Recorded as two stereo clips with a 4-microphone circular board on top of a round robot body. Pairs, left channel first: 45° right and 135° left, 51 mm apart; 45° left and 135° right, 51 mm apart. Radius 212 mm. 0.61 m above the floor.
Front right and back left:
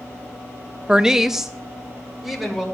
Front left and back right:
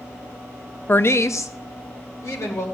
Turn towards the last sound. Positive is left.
turn(degrees=45)